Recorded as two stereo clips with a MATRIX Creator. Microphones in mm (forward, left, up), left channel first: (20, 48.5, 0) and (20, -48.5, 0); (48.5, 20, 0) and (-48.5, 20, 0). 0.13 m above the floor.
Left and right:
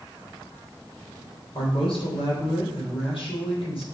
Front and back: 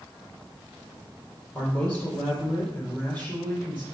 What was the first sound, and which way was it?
A man speaking, 75° left.